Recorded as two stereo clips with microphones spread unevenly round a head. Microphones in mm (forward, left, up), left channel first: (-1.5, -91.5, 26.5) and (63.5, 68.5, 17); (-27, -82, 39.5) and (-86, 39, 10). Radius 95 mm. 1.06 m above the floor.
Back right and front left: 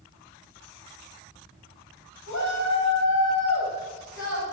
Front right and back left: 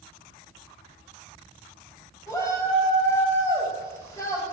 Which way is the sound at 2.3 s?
130° right.